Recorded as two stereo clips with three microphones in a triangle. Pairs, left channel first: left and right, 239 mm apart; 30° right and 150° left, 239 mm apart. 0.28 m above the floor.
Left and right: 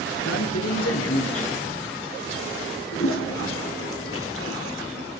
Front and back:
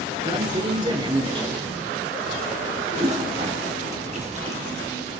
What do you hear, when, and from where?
0.2 s a man speaking: 80° left, 5 m
2.9 s a toilet flushing: 95° left, 2.5 m